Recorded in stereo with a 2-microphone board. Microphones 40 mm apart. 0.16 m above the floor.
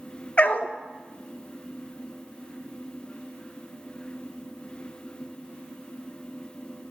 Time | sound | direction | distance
0.4 | a dog barking | 35° left (ahead or behind) | 0.6 m